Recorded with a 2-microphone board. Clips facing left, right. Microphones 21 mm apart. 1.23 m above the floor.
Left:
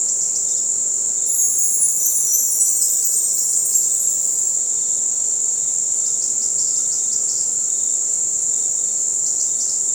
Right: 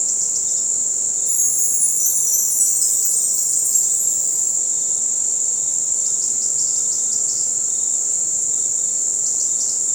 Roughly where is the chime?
Centre.